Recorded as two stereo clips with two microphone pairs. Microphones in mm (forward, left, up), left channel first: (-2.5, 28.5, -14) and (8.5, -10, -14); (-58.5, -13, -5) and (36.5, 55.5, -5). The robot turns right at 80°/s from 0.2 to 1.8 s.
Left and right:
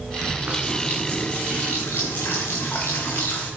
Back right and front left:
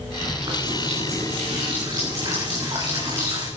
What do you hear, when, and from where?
0.2 s a running tap: 35° right, 6.5 m; by 3.5 s 90° left, 6.5 m